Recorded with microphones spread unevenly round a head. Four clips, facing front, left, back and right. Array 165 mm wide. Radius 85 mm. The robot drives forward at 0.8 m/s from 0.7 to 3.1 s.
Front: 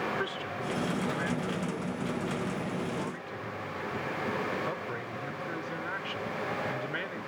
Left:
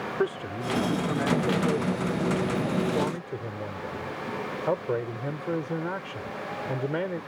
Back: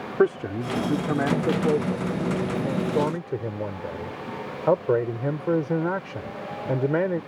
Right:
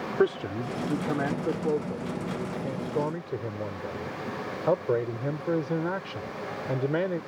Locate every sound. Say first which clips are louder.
0.2 s a man speaking: right 4 dB, back 12 dB; 165° right; by 7.2 s 170° right